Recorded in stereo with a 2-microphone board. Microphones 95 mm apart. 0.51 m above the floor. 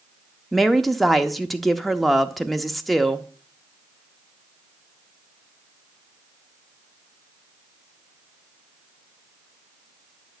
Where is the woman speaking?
Centre (ahead or behind), 0.7 m.